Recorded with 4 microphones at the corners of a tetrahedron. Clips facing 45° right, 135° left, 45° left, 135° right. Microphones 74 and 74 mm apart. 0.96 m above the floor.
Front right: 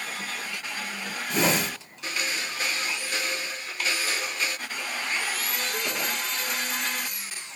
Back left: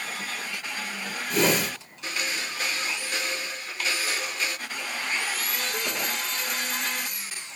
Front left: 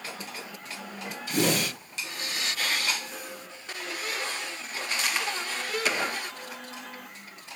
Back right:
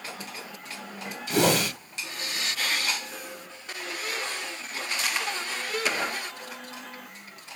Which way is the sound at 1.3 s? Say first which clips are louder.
Back left 1 dB, back right 3 dB; 135° right.